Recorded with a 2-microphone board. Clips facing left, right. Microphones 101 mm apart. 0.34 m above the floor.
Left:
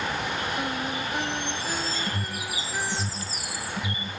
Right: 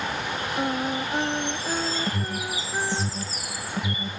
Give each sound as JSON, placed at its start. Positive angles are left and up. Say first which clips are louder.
{"t": 0.6, "sound": "singing", "louder": "right 3 dB", "side_deg": -30}
{"t": 2.1, "sound": "an alarm", "louder": "right 3 dB", "side_deg": -40}